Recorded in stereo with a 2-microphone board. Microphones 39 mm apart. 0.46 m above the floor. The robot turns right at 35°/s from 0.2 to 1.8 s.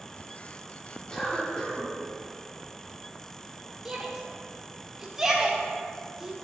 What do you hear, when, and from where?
1.1 s a cough: 20° left (ahead or behind), 1.3 m; by 1.9 s 15° left (ahead or behind), 1.3 m
3.9 s a shout: 10° right (ahead or behind), 0.7 m